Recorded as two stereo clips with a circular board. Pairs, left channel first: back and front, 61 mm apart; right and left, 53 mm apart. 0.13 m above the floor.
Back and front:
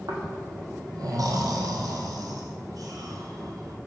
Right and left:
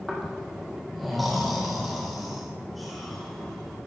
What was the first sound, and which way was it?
Snoring, straight ahead.